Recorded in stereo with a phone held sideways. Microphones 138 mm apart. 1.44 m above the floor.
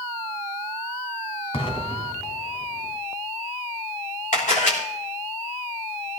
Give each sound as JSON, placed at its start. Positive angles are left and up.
{"t": 1.5, "sound": "an explosion", "side_deg": 45, "distance_m": 2.5}
{"t": 4.3, "sound": "a camera shutter", "side_deg": 70, "distance_m": 4.0}